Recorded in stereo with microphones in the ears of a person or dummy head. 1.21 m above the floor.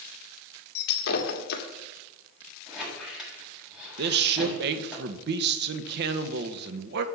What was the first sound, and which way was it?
Breaking glass, 55° left (ahead or behind).